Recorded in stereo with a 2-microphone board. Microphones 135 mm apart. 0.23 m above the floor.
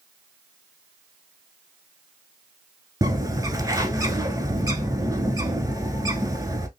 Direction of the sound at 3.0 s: 25° right (ahead or behind).